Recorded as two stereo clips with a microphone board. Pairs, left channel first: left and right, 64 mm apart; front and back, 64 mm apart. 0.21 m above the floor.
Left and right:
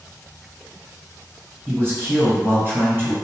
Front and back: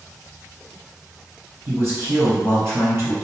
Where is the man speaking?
140° right, 1.8 m.